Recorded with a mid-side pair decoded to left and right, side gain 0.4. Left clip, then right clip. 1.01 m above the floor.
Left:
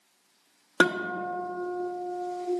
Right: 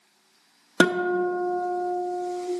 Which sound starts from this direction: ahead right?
A guitar, at 0.8 s.